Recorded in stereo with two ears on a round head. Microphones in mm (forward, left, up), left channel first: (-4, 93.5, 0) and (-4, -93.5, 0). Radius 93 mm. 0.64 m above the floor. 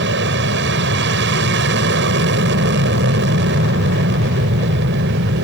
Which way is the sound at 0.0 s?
55° right (ahead or behind).